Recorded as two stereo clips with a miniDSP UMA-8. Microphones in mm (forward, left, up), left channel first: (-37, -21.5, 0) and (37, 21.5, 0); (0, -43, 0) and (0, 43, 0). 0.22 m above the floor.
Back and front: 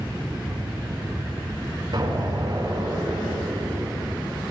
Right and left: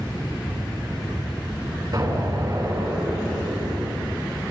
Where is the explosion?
60° left, 4.5 m.